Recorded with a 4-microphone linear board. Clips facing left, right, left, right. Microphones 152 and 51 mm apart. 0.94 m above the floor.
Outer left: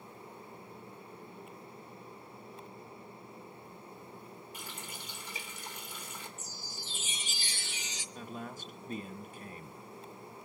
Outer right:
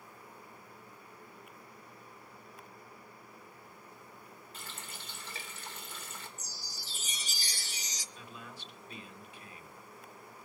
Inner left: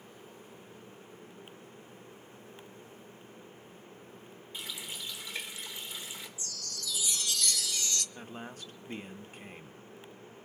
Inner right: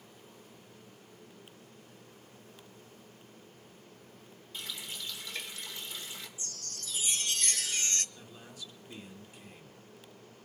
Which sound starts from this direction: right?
A chime, at 6.4 s.